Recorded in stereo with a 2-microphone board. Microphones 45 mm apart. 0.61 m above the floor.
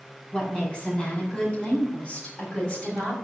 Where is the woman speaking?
20° left (ahead or behind), 6 m; by 3.1 s 30° left (ahead or behind), 4.5 m.